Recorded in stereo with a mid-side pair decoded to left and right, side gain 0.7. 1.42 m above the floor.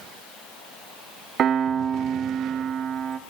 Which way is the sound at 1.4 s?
40° right.